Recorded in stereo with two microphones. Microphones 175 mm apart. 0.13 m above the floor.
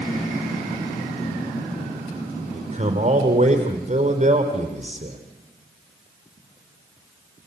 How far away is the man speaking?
About 4 m.